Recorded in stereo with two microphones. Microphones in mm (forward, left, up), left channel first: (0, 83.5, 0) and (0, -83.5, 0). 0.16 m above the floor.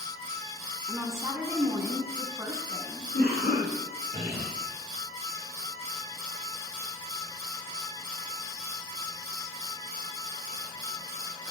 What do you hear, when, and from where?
0.9 s a woman speaking: 15° right (ahead or behind), 1.2 m
3.1 s a cough: 70° left (ahead or behind), 4.5 m